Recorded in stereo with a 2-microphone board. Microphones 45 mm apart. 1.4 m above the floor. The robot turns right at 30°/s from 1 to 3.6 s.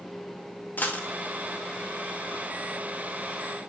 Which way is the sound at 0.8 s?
40° left (ahead or behind).